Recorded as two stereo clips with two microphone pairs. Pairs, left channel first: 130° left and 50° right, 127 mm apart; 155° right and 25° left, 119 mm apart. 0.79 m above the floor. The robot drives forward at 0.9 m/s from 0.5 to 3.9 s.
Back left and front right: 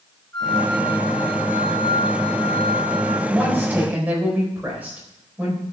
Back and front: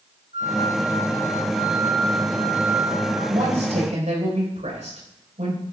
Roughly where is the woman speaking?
Ahead left.